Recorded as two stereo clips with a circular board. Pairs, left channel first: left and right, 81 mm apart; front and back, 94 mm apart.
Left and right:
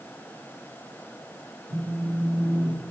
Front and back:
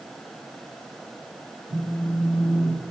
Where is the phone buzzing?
45° left, 3.5 m.